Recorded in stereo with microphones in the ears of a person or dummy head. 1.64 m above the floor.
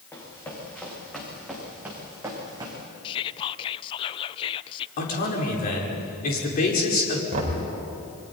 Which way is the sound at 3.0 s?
30° left (ahead or behind).